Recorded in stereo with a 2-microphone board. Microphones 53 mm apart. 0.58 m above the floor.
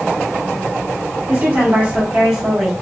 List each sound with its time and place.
1.3 s a woman speaking: 40° right (ahead or behind), 1.1 m; by 2.7 s 5° right (ahead or behind), 1.0 m